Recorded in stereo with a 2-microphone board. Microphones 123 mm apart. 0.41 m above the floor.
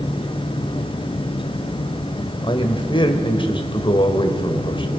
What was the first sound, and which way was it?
A man speaking, 40° left (ahead or behind).